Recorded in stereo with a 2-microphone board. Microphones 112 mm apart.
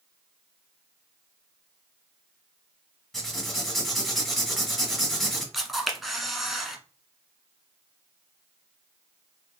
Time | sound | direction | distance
3.1 | writing | centre (ahead or behind) | 1.5 m
5.5 | a camera shutter | centre (ahead or behind) | 0.9 m